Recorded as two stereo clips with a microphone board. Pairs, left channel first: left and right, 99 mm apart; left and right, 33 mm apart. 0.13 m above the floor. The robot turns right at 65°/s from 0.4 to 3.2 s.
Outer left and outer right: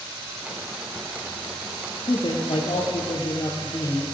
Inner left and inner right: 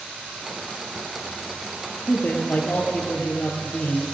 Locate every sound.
2.1 s a man speaking: 50° left, 2.5 m; by 4.0 s 125° left, 2.5 m